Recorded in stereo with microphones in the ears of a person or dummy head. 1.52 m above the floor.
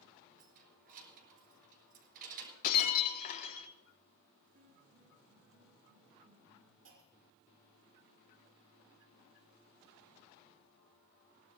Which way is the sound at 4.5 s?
65° right (ahead or behind).